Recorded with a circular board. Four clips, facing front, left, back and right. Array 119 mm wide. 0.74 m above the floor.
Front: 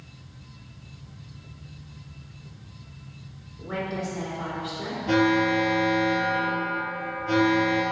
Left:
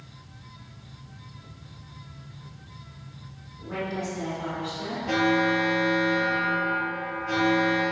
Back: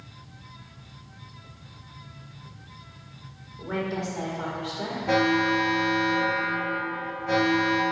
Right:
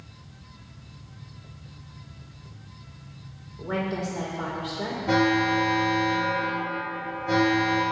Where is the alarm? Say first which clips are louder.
Right 1 dB, front 1 dB; 140° right, 1.8 m.